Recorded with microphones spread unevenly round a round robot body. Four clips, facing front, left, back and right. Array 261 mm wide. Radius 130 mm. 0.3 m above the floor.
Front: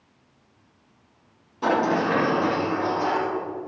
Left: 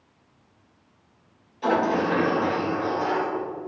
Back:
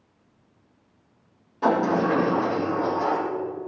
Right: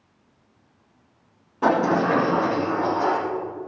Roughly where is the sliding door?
Right.